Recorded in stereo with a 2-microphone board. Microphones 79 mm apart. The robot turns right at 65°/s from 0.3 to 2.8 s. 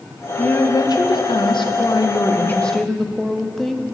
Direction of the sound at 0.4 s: 20° left.